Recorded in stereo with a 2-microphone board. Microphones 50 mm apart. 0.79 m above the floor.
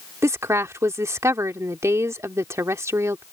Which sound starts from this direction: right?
A woman speaking, at 0.2 s.